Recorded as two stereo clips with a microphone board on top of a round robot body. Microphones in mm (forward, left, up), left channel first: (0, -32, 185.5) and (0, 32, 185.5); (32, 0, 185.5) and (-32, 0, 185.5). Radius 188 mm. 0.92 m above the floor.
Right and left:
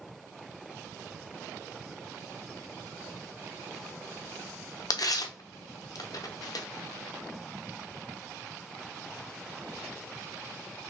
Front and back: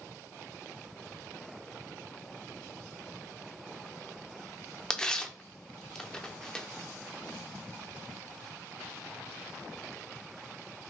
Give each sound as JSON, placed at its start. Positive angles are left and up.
{"t": 4.9, "sound": "tearing paper", "azimuth_deg": -80, "distance_m": 0.7}